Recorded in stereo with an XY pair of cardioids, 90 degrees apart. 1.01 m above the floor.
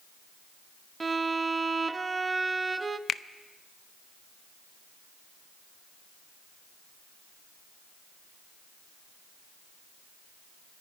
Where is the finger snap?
65° left, 0.5 m.